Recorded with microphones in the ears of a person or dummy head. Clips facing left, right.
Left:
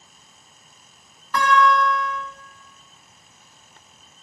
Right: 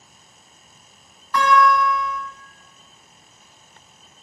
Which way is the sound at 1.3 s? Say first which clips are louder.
Right 1 dB; 40° left (ahead or behind).